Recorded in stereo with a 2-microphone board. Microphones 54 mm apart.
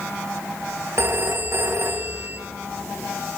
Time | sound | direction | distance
1.0 | a phone ringing | 55° right (ahead or behind) | 1.1 m